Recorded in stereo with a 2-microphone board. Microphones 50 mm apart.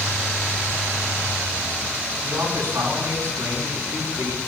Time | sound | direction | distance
2.2 | a man speaking | 80° right | 8 m